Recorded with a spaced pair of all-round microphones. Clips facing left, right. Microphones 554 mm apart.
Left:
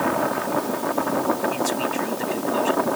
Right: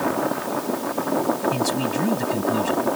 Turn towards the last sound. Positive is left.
turn(degrees=-60)  # may be behind; listen again after turning